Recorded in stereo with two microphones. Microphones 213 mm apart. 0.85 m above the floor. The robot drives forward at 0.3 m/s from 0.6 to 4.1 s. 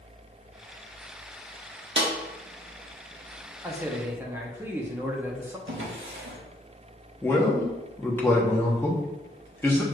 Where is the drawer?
65° right (ahead or behind), 1.0 m.